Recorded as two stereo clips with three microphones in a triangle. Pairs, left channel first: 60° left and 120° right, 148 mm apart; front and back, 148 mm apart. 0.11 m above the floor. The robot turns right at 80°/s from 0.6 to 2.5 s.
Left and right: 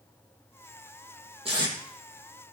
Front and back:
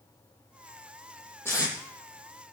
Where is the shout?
No shout in this recording.